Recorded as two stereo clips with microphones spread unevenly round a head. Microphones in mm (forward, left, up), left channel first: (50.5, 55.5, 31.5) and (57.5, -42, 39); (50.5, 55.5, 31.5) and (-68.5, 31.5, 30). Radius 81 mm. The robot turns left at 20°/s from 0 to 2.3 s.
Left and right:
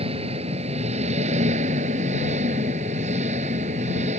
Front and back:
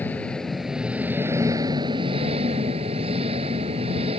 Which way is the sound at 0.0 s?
65° right.